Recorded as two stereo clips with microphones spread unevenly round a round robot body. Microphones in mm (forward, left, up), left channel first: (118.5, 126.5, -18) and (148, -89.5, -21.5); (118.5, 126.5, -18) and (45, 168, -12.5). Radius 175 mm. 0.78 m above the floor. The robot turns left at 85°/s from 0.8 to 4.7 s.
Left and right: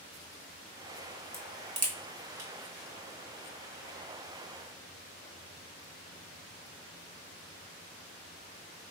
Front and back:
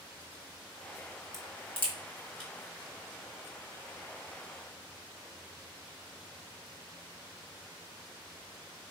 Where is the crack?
15° left, 1.9 m; by 2.5 s 85° right, 1.9 m.